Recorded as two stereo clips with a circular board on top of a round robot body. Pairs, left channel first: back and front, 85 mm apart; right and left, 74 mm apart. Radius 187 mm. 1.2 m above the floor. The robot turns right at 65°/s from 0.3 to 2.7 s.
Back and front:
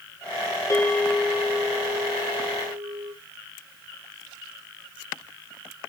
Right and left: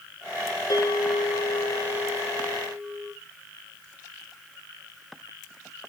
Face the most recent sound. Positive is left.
turn(degrees=5)